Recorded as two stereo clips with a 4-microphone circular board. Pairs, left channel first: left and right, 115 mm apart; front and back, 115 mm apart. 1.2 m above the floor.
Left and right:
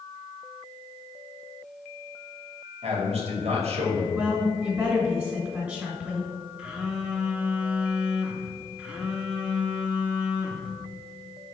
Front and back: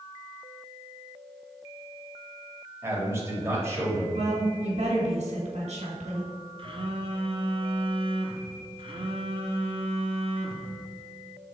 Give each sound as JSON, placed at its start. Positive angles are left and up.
{"t": 2.8, "sound": "a man speaking", "azimuth_deg": -115, "distance_m": 2.0}
{"t": 4.2, "sound": "a woman speaking", "azimuth_deg": -160, "distance_m": 2.0}
{"t": 6.6, "sound": "a phone buzzing", "azimuth_deg": -170, "distance_m": 0.9}